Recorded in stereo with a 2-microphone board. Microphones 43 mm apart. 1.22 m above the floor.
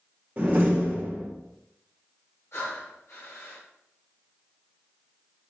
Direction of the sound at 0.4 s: 35° right (ahead or behind).